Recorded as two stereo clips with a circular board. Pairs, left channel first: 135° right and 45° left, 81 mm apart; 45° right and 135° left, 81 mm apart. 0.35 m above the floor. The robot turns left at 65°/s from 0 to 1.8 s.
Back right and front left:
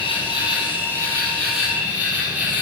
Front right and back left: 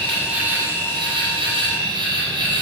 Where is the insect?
125° right, 5.5 m; by 2.6 s 120° left, 5.5 m.